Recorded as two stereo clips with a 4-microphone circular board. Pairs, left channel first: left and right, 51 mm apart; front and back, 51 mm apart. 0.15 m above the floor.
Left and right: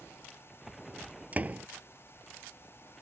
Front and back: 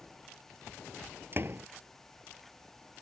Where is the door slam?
145° right.